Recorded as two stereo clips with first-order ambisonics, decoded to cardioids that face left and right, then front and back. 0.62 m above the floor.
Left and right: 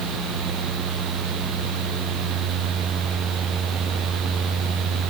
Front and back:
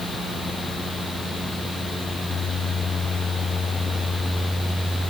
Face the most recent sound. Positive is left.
No sound to turn to.